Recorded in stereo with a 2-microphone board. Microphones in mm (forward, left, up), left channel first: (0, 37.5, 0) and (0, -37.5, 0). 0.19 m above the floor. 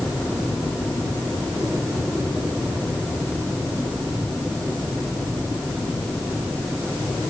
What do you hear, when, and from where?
Only background noise.